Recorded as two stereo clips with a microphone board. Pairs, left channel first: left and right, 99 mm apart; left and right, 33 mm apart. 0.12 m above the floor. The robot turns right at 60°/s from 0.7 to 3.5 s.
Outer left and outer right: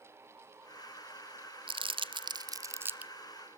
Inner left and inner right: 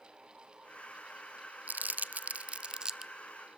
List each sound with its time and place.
1.7 s crumpling: 60° right (ahead or behind), 0.8 m; by 3.1 s 10° right (ahead or behind), 0.8 m